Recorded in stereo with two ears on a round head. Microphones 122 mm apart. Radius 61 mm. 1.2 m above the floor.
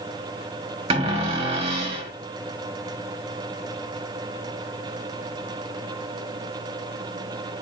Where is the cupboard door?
45° right (ahead or behind), 1.4 m.